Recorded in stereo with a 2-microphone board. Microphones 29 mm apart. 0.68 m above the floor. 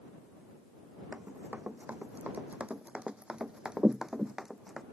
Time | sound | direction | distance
1.1 | running footsteps | 70° right (ahead or behind) | ?